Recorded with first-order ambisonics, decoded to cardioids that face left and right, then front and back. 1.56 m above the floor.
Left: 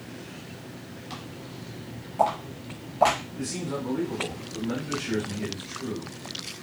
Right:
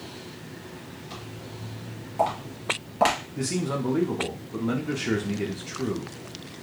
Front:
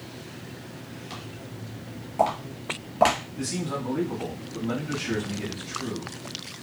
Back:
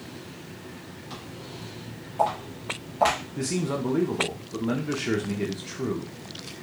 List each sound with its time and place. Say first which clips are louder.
1.1 s footsteps: left 1 dB, back 2 dB; 65° left, 1.6 m; by 3.2 s 60° right, 1.8 m
3.4 s a man speaking: right 3 dB, back 2 dB; 140° right, 0.7 m